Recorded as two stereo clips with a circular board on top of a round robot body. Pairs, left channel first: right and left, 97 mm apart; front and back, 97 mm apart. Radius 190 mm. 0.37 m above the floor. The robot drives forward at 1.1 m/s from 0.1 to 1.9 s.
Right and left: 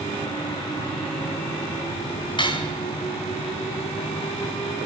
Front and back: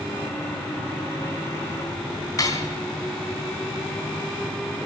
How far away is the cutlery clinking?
About 3.5 m.